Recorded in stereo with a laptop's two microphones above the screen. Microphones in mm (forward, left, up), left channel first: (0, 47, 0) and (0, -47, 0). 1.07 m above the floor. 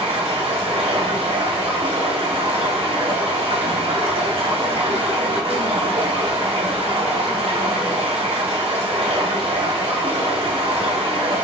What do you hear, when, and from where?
0.0 s running water: 80° right, 1.4 m